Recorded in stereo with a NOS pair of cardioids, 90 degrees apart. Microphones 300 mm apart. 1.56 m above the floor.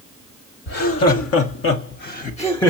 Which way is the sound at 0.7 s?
60° left.